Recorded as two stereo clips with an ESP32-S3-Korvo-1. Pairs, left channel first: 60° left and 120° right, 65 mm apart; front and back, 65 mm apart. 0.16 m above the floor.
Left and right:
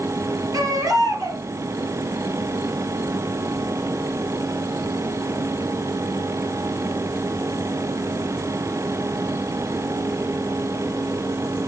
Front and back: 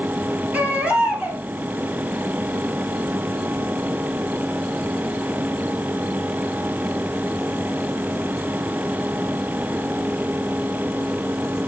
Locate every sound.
0.5 s a baby crying: 115° right, 3 m